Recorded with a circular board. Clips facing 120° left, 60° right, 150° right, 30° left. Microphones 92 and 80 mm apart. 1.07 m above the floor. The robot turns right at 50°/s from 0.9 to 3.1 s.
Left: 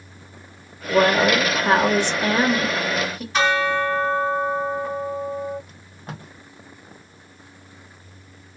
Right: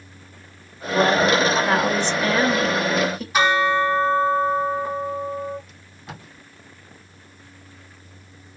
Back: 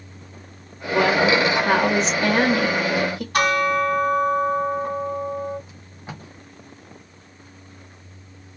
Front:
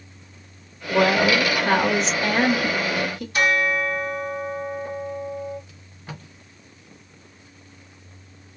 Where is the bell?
140° right, 1.7 m.